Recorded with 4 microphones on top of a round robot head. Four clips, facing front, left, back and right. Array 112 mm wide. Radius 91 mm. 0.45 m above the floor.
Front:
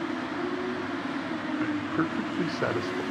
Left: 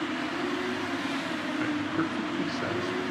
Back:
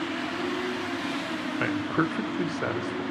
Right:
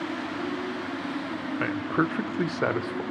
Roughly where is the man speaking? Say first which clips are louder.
Right 4 dB, back 3 dB; behind right.